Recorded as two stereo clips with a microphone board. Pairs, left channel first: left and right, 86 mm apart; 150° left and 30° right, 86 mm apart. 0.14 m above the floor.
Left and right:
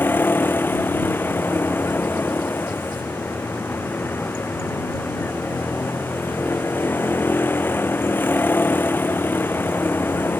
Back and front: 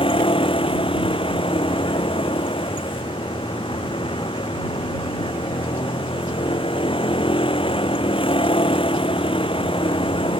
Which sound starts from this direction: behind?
A vehicle, at 0.0 s.